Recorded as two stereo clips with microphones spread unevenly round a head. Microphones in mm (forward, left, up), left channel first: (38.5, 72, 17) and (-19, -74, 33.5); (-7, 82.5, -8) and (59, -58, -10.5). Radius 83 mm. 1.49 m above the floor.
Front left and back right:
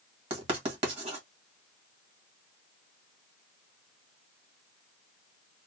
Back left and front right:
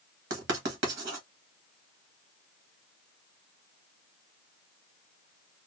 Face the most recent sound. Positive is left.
turn(degrees=-60)